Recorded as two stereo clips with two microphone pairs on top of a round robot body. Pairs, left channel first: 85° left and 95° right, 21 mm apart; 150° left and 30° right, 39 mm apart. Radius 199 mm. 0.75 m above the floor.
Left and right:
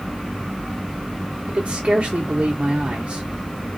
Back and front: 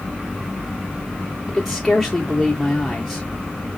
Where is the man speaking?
130° right, 0.8 m.